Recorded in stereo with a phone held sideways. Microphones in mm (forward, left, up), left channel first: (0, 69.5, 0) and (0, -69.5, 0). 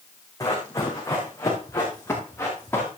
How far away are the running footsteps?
About 4 m.